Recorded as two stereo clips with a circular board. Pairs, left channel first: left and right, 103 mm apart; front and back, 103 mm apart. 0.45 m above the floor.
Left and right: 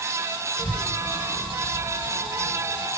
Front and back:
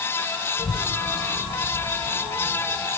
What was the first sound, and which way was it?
A child speaking, 15° left.